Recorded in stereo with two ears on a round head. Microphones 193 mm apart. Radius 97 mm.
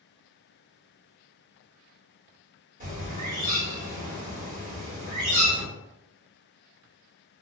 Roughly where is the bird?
Right.